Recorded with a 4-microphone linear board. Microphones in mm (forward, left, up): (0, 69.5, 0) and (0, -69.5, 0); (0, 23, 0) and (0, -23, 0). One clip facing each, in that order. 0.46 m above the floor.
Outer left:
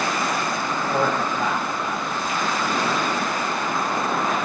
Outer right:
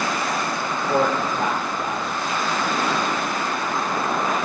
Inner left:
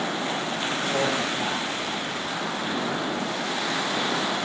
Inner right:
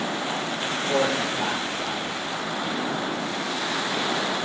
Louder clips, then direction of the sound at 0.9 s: Outer right 3 dB, inner right 3 dB; 35° right (ahead or behind).